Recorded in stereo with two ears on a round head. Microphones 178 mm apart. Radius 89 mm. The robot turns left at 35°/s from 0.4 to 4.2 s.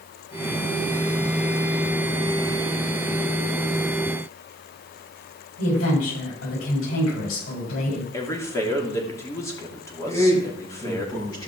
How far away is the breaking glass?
I don't hear breaking glass.